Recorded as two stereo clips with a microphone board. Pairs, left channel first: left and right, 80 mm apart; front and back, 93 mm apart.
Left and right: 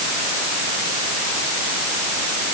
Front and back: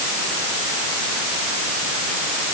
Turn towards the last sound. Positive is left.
No sound to turn to.